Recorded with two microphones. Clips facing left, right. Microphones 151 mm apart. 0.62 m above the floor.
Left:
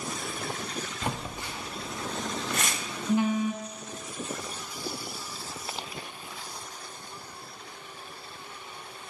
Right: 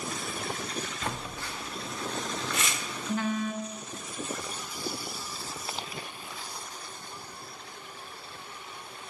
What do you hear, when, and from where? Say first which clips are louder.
1.0 s a phone buzzing: left 2 dB; 15° left (ahead or behind), 0.8 m
2.5 s tearing paper: left 1 dB; 45° left (ahead or behind), 0.8 m